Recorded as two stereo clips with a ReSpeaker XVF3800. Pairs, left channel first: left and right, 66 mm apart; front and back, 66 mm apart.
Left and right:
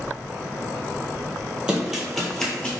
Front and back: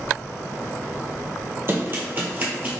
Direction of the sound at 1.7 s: 165° right.